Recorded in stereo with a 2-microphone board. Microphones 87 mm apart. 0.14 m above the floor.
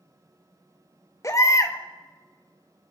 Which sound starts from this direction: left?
A baby crying, at 1.2 s.